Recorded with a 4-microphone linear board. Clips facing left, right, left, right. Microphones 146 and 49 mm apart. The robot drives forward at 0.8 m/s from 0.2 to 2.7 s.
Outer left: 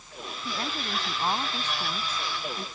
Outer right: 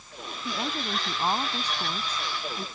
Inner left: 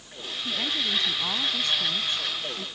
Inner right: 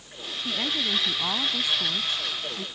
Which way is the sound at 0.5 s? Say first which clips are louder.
Outer right 2 dB, inner right 1 dB; 15° right (ahead or behind).